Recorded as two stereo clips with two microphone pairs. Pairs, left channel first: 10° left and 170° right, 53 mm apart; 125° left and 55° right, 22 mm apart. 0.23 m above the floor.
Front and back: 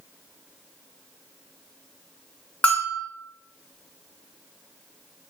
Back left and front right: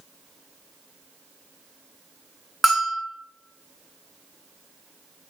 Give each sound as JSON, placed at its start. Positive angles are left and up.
{"t": 2.6, "sound": "a bell", "azimuth_deg": 25, "distance_m": 0.9}